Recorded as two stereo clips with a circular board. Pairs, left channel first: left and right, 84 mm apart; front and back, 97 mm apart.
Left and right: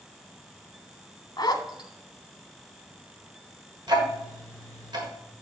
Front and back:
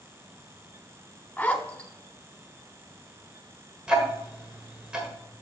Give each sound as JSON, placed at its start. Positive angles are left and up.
{"t": 1.4, "sound": "a zipper", "azimuth_deg": 75, "distance_m": 0.9}
{"t": 3.9, "sound": "ticking", "azimuth_deg": -100, "distance_m": 1.6}